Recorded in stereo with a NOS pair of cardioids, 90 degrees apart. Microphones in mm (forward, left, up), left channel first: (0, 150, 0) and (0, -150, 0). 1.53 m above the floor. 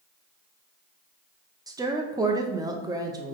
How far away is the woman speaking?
About 0.6 m.